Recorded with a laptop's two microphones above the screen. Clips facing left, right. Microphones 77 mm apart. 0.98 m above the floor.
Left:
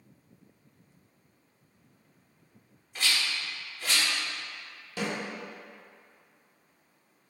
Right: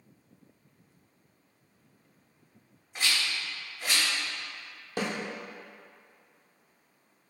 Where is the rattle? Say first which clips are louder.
Even; 20° right (ahead or behind), 1.6 m.